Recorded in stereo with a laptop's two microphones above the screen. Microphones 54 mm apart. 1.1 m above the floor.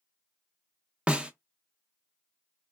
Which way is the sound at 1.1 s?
20° right (ahead or behind).